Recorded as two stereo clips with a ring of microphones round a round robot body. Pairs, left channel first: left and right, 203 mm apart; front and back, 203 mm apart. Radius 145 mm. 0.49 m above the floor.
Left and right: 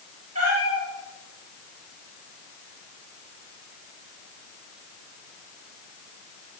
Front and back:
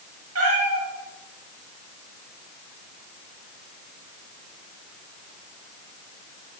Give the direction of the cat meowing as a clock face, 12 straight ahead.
5 o'clock.